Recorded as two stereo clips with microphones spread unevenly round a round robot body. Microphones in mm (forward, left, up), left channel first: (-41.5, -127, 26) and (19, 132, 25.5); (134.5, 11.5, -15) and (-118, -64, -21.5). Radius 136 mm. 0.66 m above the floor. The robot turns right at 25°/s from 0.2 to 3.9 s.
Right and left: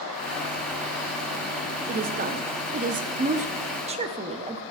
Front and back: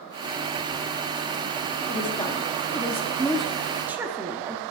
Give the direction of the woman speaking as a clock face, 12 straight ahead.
10 o'clock.